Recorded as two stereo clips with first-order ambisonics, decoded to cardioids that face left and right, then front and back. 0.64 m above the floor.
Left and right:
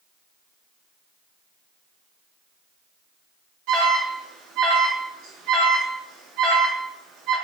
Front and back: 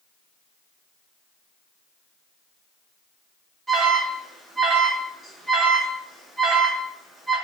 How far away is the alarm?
About 0.8 m.